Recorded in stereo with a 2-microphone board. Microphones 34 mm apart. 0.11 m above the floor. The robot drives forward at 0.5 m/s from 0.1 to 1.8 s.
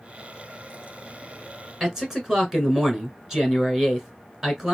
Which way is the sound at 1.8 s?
15° right (ahead or behind).